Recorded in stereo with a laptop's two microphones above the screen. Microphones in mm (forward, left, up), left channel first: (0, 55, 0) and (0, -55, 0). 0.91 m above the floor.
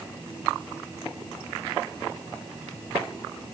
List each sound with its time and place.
Only background noise.